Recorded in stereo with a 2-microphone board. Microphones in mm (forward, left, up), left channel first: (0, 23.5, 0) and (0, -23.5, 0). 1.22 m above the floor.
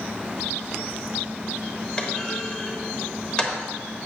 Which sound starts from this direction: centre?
A clunk, at 2.0 s.